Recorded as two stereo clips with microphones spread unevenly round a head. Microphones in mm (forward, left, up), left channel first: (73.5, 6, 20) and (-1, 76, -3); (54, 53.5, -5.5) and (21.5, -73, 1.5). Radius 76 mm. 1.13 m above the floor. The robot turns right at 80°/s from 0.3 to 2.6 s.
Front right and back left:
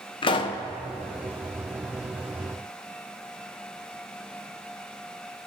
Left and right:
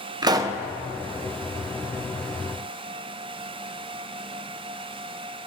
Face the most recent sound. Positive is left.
turn(degrees=120)